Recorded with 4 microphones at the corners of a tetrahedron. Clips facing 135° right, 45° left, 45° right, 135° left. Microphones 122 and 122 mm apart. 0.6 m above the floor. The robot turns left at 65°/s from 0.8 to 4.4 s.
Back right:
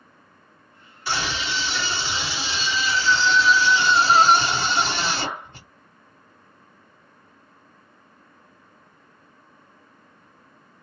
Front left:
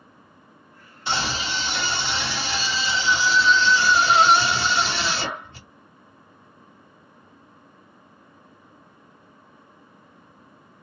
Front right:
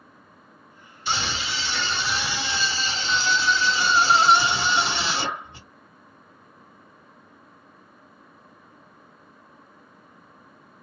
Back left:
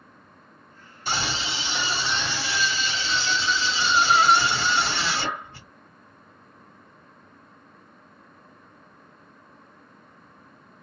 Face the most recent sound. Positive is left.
turn(degrees=-110)